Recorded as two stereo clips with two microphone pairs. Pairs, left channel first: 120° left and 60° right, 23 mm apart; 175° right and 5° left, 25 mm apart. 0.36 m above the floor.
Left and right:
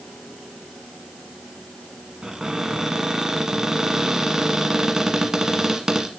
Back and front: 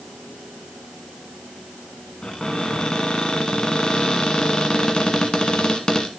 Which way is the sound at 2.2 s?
125° right.